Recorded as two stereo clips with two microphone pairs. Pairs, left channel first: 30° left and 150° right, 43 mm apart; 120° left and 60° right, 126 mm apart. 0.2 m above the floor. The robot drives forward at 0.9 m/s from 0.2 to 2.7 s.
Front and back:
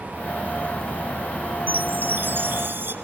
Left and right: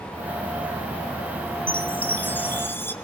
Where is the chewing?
I don't hear chewing.